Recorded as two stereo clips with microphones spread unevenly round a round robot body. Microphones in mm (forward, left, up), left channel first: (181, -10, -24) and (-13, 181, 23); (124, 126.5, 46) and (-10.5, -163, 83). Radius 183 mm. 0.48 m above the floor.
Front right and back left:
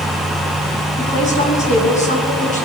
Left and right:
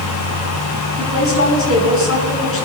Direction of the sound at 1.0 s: 20° left.